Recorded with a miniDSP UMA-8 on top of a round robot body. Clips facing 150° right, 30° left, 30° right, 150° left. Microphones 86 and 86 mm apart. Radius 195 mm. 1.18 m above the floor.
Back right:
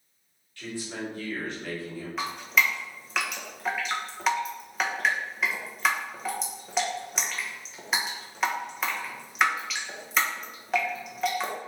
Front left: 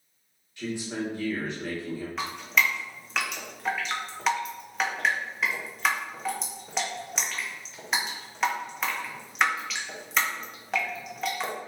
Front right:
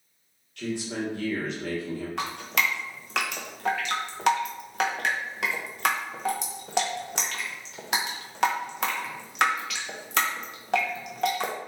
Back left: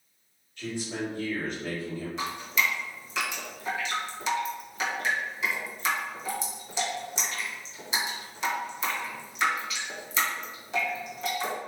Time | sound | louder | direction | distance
0.6 | a man speaking | front left 3 dB, front right 2 dB | 45° right | 1.8 m
2.2 | dripping | back right 1 dB, even | 60° right | 0.7 m